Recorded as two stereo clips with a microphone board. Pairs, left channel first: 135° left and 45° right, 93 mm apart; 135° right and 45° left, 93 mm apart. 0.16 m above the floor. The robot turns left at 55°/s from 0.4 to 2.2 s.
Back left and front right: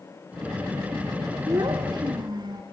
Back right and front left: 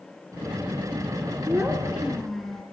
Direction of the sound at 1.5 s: 5° right.